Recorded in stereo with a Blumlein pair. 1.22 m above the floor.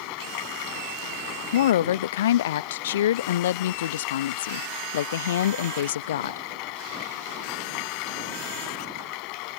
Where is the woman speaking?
60° left.